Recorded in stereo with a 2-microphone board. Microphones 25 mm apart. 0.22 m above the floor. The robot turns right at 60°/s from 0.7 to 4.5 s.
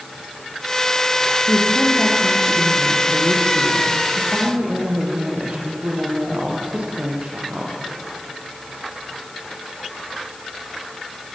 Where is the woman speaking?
90° left, 7.5 m; by 7.8 s 90° right, 7.5 m.